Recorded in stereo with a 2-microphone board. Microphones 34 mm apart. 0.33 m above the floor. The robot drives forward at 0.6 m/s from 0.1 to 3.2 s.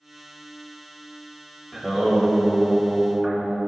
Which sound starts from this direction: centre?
Singing, at 1.7 s.